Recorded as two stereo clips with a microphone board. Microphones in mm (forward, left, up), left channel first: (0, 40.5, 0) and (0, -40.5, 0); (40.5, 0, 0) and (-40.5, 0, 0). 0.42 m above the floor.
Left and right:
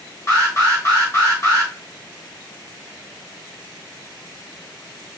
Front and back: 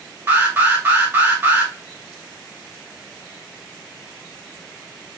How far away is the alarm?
About 1.9 m.